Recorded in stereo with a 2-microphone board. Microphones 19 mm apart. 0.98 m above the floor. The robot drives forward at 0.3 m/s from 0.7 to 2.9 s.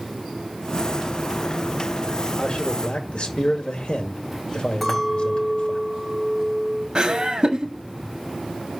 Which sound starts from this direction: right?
Laughter, at 7.0 s.